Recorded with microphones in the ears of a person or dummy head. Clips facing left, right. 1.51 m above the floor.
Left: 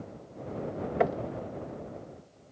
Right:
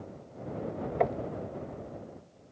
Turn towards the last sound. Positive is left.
turn(degrees=10)  # may be behind; listen again after turning